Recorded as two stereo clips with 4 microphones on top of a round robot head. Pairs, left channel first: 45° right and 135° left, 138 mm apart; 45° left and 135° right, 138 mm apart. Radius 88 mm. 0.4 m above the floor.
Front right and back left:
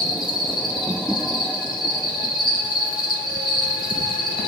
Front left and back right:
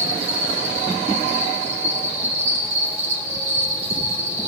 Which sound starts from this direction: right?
An insect, at 0.0 s.